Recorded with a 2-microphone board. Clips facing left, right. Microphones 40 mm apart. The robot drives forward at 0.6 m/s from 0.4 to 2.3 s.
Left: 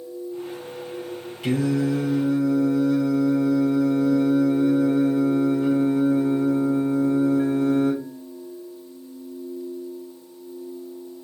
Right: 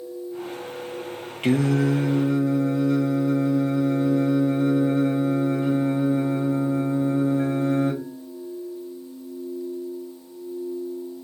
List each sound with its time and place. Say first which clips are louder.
1.4 s singing: right 1 dB; 50° right (ahead or behind), 0.5 m; by 8.0 s 35° right (ahead or behind), 0.7 m